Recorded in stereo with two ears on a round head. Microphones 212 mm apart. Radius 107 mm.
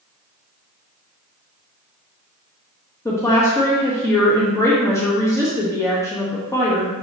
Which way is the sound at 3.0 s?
10° left (ahead or behind).